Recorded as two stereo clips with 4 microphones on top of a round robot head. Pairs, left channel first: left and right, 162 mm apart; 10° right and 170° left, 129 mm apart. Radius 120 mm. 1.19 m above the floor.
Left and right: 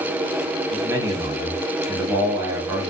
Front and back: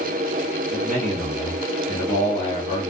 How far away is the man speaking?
About 1.6 m.